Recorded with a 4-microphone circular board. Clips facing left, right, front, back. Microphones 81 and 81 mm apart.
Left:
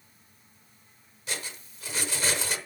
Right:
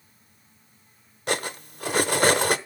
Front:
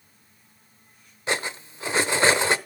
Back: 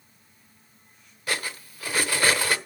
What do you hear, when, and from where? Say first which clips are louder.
1.3 s cutlery clinking: right 11 dB, front 3 dB; 65° right, 0.9 m